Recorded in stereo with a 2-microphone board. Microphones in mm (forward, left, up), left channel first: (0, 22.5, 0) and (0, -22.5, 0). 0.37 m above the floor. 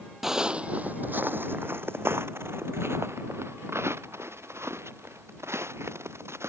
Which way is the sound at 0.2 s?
10° right (ahead or behind).